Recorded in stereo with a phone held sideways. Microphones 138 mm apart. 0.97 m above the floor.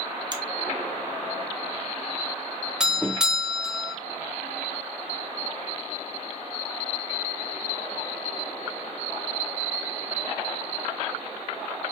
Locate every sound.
0.3 s a finger snap: 30° right (ahead or behind), 0.8 m
2.8 s a doorbell: 5° right (ahead or behind), 0.7 m